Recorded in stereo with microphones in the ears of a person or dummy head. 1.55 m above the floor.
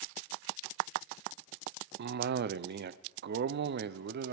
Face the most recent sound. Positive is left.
turn(degrees=-55)  # may be behind; listen again after turning